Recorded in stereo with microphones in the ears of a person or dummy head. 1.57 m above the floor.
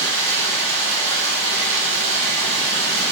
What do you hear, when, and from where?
0.0 s running water: 70° right (ahead or behind), 1.3 m